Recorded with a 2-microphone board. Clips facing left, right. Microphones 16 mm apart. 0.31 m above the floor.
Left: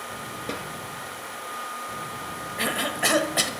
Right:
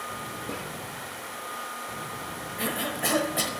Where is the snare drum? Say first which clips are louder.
Left 4 dB; 50° left (ahead or behind), 1.3 m.